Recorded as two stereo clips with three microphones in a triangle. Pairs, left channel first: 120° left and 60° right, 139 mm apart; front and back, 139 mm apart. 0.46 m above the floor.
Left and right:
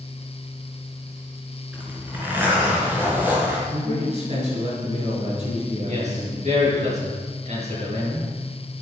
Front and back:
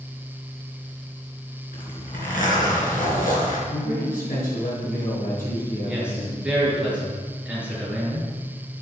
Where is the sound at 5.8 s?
95° right, 6.5 m.